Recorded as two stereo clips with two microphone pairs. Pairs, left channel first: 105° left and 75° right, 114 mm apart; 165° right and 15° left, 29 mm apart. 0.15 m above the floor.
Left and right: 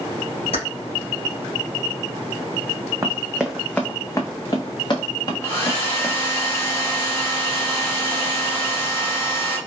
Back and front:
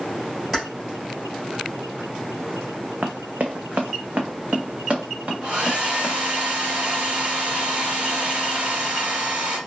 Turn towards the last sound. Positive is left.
turn(degrees=45)